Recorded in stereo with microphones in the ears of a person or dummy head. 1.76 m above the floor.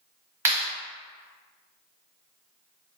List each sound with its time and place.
0.5 s a clap: 20° right (ahead or behind), 1.7 m